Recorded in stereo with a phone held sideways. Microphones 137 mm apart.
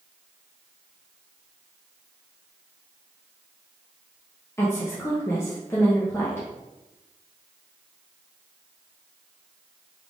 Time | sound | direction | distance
4.6 | a woman speaking | 20° left (ahead or behind) | 0.7 m